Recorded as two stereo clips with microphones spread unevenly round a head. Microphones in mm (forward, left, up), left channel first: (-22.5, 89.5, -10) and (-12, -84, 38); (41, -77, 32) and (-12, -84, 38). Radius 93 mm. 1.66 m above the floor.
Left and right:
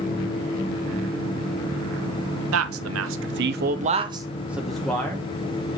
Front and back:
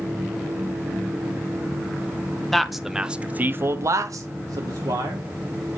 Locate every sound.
2.5 s a man speaking: 80° right, 1.2 m; by 5.8 s 165° left, 1.8 m